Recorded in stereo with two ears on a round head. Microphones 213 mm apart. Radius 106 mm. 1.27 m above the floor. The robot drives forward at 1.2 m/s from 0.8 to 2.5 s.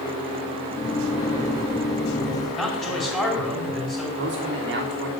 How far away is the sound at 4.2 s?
About 3.5 m.